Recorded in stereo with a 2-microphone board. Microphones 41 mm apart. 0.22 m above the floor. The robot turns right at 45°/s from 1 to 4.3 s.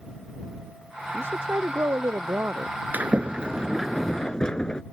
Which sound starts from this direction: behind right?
A woman speaking, at 1.1 s.